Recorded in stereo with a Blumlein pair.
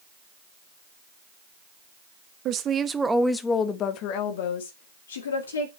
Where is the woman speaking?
35° right, 1.4 m; by 5.7 s 70° left, 3 m.